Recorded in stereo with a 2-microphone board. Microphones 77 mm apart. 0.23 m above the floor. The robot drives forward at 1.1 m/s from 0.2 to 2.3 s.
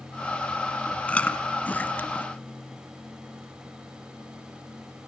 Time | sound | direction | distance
1.1 | chewing | 15° left (ahead or behind) | 2.5 m